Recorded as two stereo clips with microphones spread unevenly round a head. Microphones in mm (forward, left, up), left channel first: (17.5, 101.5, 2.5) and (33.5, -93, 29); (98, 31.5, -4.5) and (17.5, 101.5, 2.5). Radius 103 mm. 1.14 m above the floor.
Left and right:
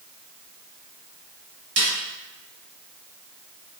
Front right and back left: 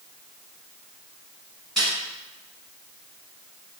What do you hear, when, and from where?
1.8 s a snare drum: 130° right, 1.6 m